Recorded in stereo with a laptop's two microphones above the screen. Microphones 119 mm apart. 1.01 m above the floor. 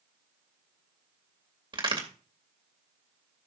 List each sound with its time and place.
1.7 s a crack: 45° right (ahead or behind), 2.5 m